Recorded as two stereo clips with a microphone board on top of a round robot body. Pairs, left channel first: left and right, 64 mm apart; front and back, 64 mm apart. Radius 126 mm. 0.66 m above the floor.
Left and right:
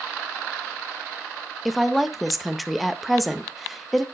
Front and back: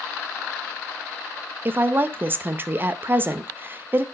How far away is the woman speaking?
About 0.9 m.